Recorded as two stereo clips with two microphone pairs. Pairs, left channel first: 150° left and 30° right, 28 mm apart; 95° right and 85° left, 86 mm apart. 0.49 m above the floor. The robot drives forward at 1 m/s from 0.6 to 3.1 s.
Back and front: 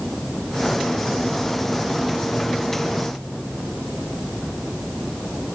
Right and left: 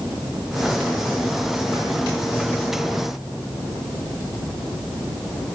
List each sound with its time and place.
Only background noise.